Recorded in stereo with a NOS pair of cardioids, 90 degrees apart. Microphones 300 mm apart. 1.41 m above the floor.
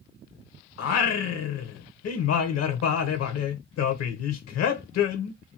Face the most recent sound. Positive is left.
turn(degrees=60)